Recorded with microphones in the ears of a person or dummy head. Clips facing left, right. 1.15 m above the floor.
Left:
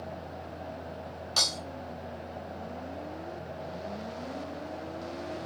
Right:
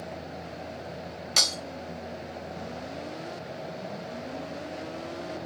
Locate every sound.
1.4 s breaking glass: 35° right (ahead or behind), 1.0 m